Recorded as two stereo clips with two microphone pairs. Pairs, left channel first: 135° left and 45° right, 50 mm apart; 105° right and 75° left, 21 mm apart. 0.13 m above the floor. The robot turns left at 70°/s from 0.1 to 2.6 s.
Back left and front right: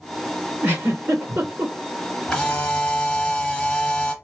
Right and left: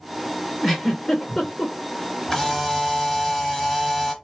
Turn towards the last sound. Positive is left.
turn(degrees=-165)